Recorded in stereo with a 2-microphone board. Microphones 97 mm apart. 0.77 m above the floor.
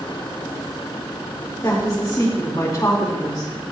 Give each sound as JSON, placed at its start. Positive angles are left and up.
{"t": 1.6, "sound": "a woman speaking", "side_deg": 40, "distance_m": 2.5}